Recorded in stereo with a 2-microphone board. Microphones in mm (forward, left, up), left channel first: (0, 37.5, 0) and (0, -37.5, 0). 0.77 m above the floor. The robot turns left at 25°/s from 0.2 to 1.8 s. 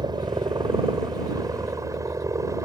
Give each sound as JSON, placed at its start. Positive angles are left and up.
{"t": 0.0, "sound": "a helicopter", "azimuth_deg": -90}